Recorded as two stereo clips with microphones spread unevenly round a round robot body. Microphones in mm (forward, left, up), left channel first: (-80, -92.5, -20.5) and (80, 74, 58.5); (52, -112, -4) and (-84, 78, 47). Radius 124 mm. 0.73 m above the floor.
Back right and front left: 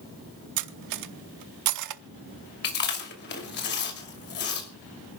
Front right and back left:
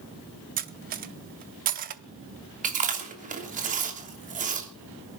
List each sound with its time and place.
0.6 s cutlery clinking: 65° left, 0.8 m
2.6 s chewing: 175° right, 3 m